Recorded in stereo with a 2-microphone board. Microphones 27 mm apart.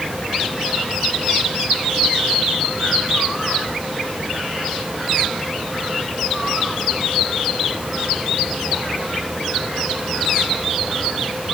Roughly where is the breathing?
No breathing in this recording.